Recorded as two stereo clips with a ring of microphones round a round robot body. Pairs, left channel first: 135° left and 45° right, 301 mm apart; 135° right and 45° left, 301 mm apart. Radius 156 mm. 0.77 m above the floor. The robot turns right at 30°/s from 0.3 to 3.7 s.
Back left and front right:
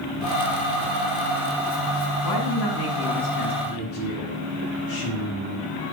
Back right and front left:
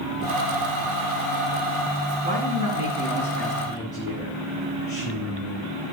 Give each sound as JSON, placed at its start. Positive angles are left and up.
{"t": 2.2, "sound": "a man speaking", "azimuth_deg": 110, "distance_m": 6.0}
{"t": 3.6, "sound": "a woman speaking", "azimuth_deg": 145, "distance_m": 6.0}